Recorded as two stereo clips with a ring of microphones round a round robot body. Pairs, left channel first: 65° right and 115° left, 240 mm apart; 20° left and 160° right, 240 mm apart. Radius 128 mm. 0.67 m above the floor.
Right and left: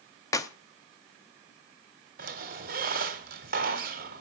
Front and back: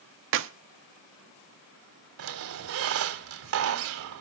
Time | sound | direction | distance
0.3 | a clap | 140° right | 1.0 m
2.2 | a squeak | 170° left | 1.3 m